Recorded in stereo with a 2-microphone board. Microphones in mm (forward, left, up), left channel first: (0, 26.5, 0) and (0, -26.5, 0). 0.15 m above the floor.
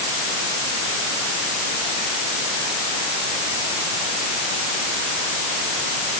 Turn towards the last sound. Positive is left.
No sound to turn to.